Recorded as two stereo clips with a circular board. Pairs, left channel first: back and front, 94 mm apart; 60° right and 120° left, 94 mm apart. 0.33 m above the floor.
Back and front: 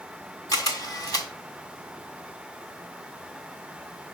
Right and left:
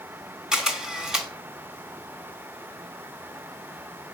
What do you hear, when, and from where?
0.5 s a camera shutter: 160° right, 1.5 m